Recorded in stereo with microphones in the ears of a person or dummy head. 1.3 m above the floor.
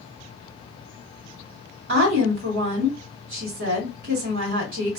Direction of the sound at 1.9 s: 60° right (ahead or behind).